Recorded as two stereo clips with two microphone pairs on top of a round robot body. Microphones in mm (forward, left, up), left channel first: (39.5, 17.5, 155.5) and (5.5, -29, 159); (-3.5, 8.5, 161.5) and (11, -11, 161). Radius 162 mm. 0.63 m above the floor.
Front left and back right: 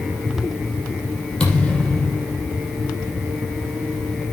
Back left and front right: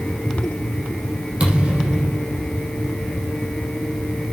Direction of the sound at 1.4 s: 20° right.